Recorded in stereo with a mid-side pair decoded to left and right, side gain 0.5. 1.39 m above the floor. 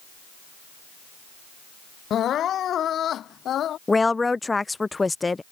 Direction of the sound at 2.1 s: 55° left.